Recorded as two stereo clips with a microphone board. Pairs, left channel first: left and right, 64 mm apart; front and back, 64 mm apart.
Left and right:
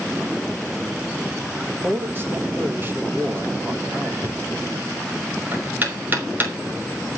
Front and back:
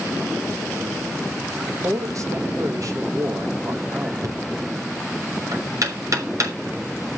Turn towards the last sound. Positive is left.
turn(degrees=-150)